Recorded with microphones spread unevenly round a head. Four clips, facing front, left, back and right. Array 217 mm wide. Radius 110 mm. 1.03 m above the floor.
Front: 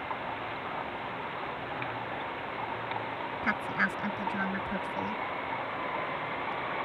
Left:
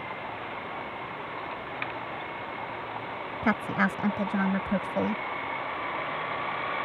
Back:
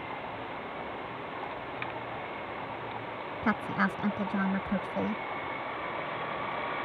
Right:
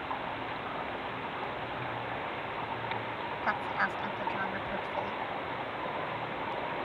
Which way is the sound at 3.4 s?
115° left.